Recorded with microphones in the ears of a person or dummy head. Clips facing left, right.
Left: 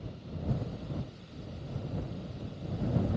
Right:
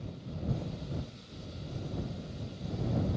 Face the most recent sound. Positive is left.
No sound to turn to.